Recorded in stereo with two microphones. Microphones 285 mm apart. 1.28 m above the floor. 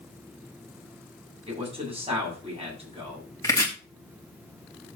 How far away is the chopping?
About 2.5 m.